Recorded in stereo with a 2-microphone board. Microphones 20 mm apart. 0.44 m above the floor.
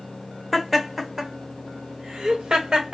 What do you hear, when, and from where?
0.5 s laughter: centre (ahead or behind), 1.2 m; by 3.0 s 55° right (ahead or behind), 1.5 m